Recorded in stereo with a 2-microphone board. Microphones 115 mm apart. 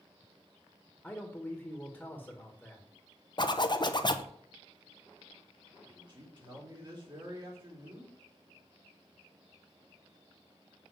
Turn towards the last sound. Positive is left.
turn(degrees=-40)  # may be behind; listen again after turning